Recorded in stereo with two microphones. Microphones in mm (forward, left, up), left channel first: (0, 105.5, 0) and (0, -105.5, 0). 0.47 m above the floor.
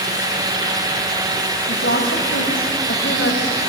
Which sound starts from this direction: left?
A woman speaking, at 1.7 s.